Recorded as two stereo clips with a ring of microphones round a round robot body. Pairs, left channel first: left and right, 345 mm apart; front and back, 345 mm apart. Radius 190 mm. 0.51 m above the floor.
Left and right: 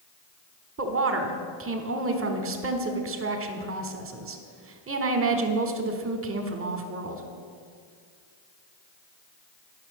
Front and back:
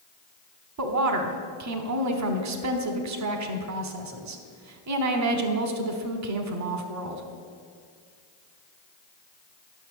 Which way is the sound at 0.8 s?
140° right.